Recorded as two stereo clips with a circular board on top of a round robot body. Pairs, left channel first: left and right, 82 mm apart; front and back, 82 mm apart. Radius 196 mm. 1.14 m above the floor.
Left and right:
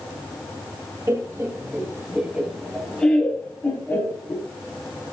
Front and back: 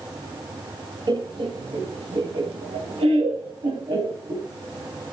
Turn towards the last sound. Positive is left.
turn(degrees=155)